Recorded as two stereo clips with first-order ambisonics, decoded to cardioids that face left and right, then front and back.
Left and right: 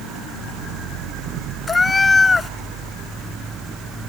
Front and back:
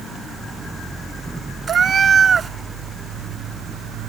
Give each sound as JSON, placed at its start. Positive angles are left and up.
{"t": 1.7, "sound": "a cat meowing", "azimuth_deg": 145}